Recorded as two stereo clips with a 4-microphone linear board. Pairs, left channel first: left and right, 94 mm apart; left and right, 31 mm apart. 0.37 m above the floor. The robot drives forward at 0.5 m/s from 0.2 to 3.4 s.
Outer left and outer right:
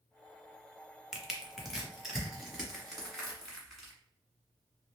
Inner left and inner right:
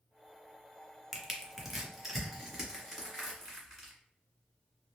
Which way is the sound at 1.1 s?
10° right (ahead or behind).